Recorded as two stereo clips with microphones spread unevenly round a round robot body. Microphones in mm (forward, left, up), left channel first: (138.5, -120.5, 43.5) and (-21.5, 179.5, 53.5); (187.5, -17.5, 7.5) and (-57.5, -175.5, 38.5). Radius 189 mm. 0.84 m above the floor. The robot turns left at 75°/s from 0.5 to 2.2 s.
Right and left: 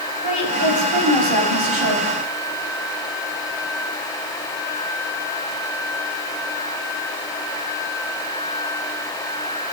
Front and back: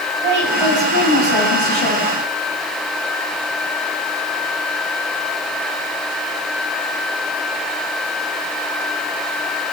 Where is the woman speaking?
175° right, 5 m; by 2.0 s 70° left, 5 m.